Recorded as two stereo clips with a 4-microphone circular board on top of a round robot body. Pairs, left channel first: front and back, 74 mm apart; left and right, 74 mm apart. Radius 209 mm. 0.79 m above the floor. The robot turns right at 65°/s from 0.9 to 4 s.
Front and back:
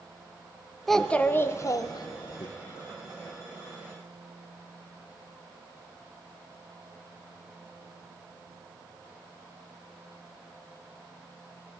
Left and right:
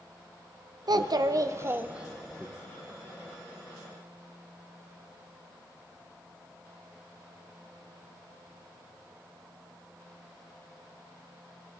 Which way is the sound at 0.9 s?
90° right.